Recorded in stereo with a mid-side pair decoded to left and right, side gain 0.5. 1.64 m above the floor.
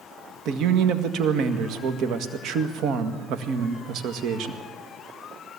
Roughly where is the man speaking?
Ahead right.